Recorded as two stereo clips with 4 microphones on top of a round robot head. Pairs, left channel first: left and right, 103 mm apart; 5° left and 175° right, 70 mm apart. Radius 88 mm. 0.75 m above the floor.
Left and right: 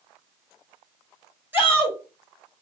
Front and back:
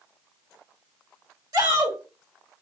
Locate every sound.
1.5 s a shout: 160° right, 1.9 m